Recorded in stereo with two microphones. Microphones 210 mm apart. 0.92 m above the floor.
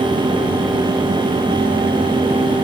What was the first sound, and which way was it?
Only background noise.